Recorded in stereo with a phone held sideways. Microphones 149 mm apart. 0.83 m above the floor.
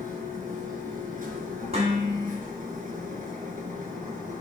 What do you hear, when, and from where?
0.0 s a machine running: 60° right (ahead or behind), 4 m
1.7 s dishes clattering: 45° right (ahead or behind), 4 m